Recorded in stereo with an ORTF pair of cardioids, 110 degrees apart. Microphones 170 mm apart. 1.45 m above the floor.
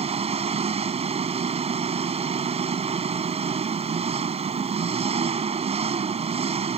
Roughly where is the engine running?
Ahead right.